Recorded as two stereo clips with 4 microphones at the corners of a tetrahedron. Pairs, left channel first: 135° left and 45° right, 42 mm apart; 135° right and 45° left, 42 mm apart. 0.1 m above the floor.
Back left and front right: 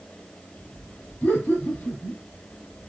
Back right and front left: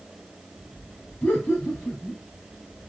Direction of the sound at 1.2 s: 175° left.